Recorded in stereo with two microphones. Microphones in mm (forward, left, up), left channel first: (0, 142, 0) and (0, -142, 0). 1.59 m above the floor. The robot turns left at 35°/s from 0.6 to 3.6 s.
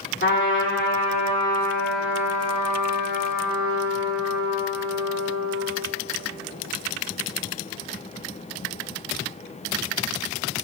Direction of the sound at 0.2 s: 45° left.